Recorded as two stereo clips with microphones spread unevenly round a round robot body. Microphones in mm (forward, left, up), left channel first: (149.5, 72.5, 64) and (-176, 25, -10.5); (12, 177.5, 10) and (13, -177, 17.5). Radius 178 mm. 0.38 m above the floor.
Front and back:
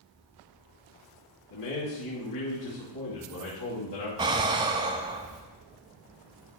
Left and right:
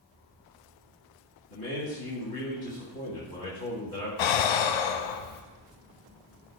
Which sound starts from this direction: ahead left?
A man speaking, at 1.5 s.